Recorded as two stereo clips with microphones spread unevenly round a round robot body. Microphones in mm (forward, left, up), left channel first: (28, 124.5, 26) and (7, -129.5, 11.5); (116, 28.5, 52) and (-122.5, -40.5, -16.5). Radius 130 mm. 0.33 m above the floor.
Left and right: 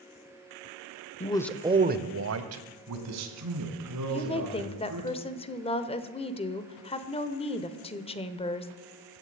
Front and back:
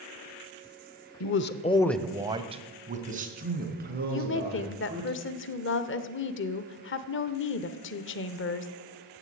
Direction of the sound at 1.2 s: 35° left.